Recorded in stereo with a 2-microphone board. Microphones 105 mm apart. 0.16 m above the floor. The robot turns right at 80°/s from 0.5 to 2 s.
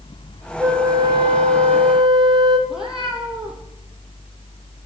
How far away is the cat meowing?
About 2 m.